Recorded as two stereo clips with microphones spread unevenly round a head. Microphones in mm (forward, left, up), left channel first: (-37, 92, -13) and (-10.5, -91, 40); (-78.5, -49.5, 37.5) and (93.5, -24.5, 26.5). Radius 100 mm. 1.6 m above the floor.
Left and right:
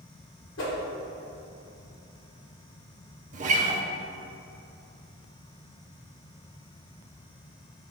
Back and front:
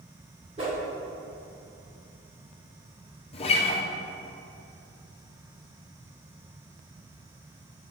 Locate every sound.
0.6 s a whoosh: 70° left, 2 m
3.3 s a guitar: 120° right, 0.8 m